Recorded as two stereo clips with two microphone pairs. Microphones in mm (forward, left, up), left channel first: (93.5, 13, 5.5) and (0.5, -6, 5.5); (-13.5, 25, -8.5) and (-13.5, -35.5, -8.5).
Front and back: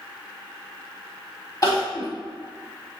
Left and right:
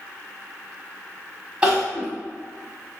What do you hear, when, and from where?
1.6 s crying: 20° right, 1.4 m